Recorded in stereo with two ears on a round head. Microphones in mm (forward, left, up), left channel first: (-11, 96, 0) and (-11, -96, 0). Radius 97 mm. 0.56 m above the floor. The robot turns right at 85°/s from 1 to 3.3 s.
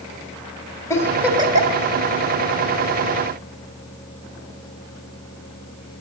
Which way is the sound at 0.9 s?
15° left (ahead or behind).